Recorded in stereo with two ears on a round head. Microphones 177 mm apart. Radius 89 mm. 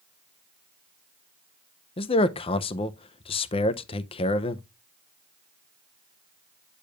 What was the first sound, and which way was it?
A man speaking, 30° left (ahead or behind).